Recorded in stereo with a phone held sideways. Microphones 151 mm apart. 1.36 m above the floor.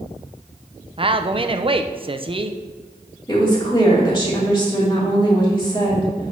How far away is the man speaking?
About 0.6 m.